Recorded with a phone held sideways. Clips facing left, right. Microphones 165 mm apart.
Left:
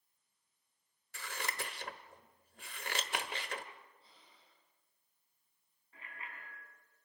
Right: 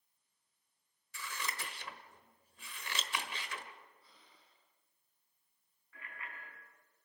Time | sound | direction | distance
1.1 | scissors | 60° left (ahead or behind) | 1.5 m
4.0 | breathing | 25° left (ahead or behind) | 10 m
5.9 | a bicycle bell | 30° left (ahead or behind) | 6 m